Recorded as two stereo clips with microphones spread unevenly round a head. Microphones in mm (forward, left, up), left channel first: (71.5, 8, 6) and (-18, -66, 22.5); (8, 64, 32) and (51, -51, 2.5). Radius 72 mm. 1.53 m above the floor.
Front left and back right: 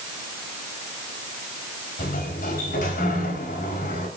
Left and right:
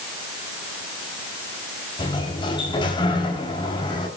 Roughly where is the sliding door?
Ahead left.